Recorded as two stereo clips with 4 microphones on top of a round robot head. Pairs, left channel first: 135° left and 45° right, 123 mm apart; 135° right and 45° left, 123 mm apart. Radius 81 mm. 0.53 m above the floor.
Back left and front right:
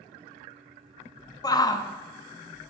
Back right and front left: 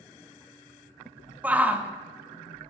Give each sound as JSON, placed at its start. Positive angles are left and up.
{"t": 1.4, "sound": "a shout", "azimuth_deg": 115, "distance_m": 1.1}